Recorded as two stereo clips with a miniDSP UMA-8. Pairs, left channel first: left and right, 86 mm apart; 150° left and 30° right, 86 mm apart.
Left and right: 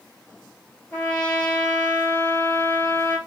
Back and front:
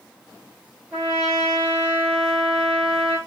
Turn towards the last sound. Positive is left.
turn(degrees=40)